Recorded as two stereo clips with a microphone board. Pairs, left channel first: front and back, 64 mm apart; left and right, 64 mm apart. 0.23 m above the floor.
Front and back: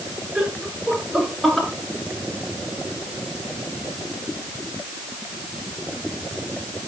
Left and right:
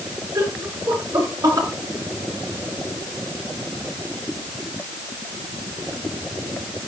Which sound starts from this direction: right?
Laughter, at 0.3 s.